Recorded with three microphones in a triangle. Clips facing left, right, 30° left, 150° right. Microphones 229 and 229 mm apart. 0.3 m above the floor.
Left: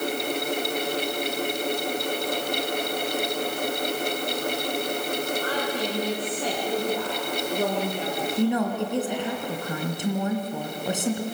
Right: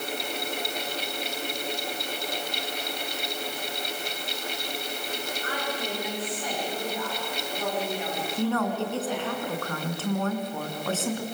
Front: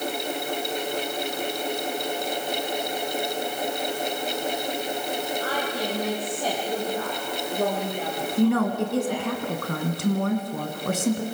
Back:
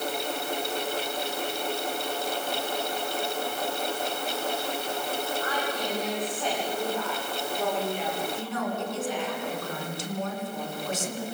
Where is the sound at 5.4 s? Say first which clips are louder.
Left 5 dB, front 2 dB; 85° left, 10 m; by 9.4 s 60° left, 6.5 m.